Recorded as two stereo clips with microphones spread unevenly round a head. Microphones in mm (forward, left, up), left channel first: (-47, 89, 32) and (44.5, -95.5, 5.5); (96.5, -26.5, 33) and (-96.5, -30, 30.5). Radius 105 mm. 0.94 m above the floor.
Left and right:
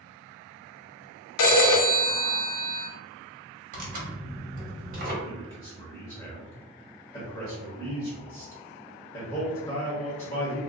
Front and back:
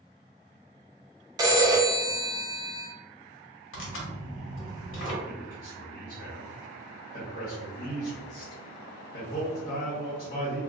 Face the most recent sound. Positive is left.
turn(degrees=45)